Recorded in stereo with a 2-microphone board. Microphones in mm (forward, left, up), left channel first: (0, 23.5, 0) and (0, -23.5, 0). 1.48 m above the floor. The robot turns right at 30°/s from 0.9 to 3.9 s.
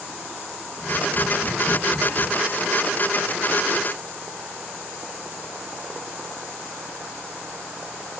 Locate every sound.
0.8 s tapping: 65° left (ahead or behind), 1.8 m; by 2.3 s 30° left (ahead or behind), 1.8 m